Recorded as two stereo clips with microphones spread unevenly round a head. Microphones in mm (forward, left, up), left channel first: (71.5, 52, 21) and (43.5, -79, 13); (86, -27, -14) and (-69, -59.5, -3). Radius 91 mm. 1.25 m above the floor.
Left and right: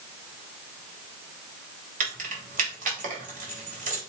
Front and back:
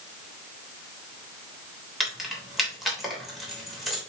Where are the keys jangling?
80° right, 3 m.